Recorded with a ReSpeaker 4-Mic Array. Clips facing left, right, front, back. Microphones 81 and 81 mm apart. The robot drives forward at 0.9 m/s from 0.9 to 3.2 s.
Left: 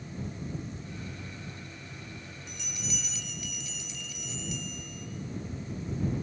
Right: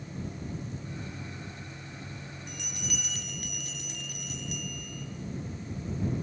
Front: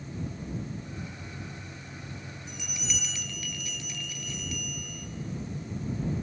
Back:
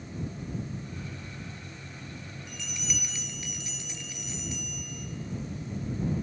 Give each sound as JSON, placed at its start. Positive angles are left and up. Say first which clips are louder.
{"t": 2.5, "sound": "a bell", "louder": "even, even", "azimuth_deg": -60, "distance_m": 0.8}